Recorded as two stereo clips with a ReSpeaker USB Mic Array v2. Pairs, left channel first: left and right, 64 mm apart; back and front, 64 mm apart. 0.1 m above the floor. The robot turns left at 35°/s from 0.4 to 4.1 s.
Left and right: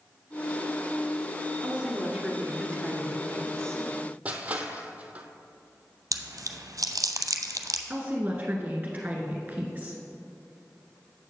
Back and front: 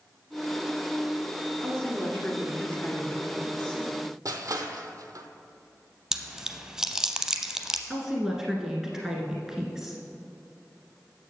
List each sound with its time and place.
1.6 s a woman speaking: 140° right, 1.3 m; by 3.8 s 145° left, 1.3 m
4.2 s crushing: 20° right, 0.7 m
6.1 s chewing: 80° right, 0.6 m
7.9 s a woman speaking: 70° right, 1.3 m